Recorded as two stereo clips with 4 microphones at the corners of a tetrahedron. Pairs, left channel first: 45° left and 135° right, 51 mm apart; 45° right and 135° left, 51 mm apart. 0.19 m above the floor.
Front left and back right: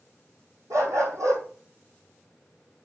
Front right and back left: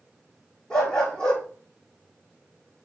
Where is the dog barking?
125° right, 3 m.